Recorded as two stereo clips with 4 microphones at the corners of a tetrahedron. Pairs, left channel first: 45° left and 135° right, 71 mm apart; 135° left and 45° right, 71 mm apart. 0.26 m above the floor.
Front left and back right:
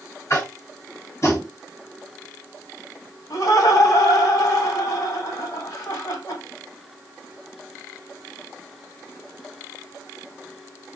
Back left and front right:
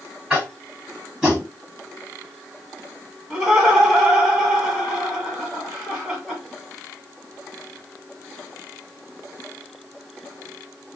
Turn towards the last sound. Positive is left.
turn(degrees=30)